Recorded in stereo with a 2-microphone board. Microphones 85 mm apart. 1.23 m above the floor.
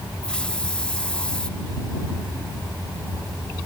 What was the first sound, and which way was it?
A hiss, 10° left (ahead or behind).